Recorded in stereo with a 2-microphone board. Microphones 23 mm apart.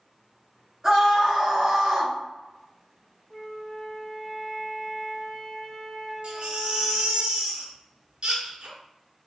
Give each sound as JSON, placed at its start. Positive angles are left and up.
{"t": 0.8, "sound": "a scream", "side_deg": -25, "distance_m": 1.5}
{"t": 3.3, "sound": "a flute", "side_deg": 30, "distance_m": 0.6}
{"t": 6.2, "sound": "a baby crying", "side_deg": -50, "distance_m": 1.5}